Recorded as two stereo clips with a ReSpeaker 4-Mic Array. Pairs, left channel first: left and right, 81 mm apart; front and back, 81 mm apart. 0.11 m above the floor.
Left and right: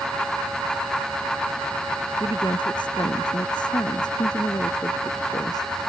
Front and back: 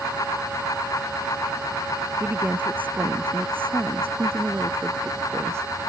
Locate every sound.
2.2 s a woman speaking: 115° left; by 5.9 s 125° left